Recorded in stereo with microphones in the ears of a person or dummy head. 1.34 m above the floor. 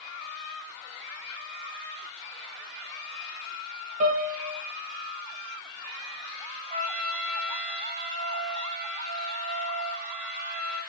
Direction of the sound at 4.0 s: 35° right (ahead or behind).